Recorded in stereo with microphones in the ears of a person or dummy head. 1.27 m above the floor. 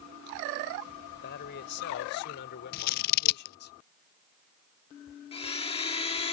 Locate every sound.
1.1 s a man speaking: 60° left (ahead or behind); by 3.7 s 55° left (ahead or behind)
2.7 s scissors: 50° left (ahead or behind)
5.3 s a blender: 30° left (ahead or behind)